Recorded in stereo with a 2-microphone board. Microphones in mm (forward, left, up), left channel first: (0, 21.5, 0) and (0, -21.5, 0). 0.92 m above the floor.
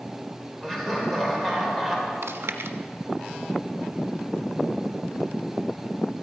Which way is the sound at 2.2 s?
85° right.